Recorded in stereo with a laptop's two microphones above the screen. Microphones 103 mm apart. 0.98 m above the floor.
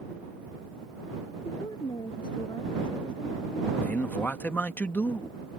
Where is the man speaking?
15° left (ahead or behind).